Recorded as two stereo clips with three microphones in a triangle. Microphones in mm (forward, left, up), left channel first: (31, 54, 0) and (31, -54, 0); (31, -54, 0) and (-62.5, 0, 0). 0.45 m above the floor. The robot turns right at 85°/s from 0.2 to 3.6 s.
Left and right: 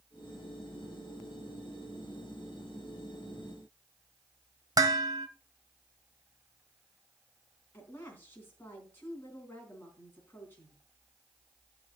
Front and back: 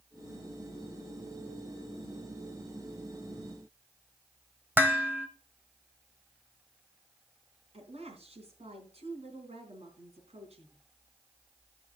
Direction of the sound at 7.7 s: 160° left.